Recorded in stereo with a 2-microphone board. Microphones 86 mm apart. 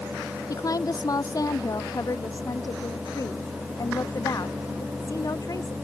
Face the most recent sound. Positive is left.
turn(degrees=45)  # may be behind; listen again after turning